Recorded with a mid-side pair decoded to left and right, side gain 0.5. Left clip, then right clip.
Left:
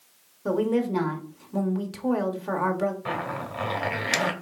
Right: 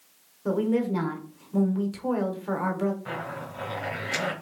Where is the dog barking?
No dog barking in this recording.